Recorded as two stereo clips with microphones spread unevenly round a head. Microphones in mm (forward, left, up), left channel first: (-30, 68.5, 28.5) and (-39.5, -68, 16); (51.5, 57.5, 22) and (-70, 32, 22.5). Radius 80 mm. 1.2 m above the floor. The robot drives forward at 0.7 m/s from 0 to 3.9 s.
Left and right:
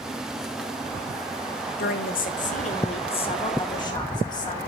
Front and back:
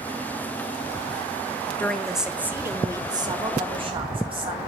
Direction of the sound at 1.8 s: 90° left.